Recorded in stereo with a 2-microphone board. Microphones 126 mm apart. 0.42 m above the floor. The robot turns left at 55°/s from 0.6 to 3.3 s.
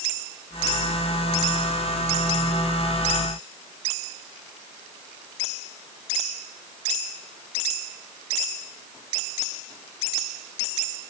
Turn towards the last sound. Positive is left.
No sound to turn to.